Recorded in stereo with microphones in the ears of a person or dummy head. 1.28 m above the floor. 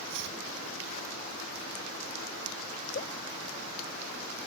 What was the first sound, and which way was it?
Chopping, 70° right (ahead or behind).